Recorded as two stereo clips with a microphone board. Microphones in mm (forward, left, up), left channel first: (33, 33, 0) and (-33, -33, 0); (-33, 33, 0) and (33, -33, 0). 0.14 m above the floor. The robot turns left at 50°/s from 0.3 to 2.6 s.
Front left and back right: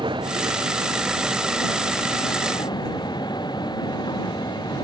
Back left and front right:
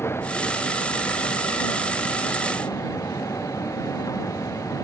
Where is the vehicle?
160° right; by 4.8 s 85° left.